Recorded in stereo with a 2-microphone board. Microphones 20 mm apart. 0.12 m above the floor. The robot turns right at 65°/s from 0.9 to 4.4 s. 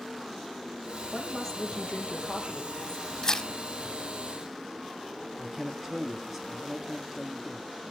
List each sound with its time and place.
1.1 s a woman speaking: 5° left, 4 m; by 3.1 s 135° left, 4 m
3.2 s tearing paper: 30° left (ahead or behind), 1.0 m; by 3.5 s 45° left (ahead or behind), 1.0 m
5.4 s a man speaking: 15° right (ahead or behind), 1.6 m